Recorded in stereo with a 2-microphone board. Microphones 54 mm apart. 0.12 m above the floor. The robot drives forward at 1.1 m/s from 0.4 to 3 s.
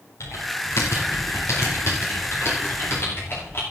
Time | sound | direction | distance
0.2 | typing on a keyboard | 65° left (ahead or behind) | 6.5 m